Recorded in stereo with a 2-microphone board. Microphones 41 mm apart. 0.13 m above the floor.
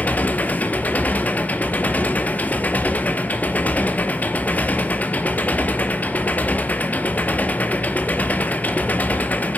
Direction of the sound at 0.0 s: 40° left (ahead or behind).